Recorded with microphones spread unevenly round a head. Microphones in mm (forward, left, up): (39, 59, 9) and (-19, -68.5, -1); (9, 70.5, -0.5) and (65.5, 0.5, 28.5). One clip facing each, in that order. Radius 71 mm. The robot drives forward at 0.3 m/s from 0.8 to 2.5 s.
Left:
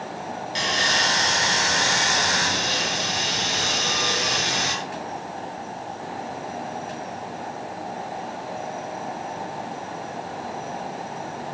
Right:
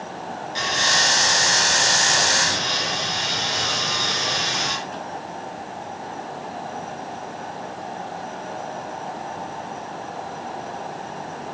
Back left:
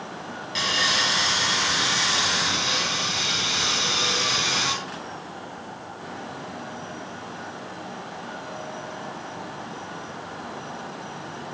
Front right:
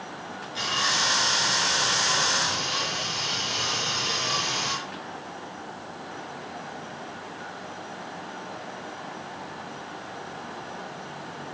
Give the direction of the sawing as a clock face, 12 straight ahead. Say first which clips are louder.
Right 1 dB, back left 2 dB; 8 o'clock.